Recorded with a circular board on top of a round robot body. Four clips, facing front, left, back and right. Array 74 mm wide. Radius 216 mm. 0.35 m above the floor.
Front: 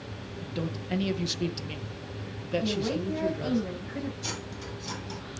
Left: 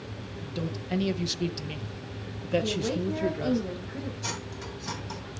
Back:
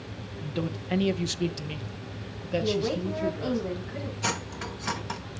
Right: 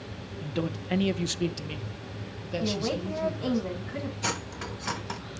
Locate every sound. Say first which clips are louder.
0.4 s a man speaking: right 4 dB, back 2 dB; 110° right, 1.3 m; by 3.6 s 80° left, 1.4 m
2.6 s a woman speaking: left 1 dB, back 3 dB; 95° right, 7 m
4.2 s cutlery clinking: right 3 dB, back 6 dB; 140° right, 1.6 m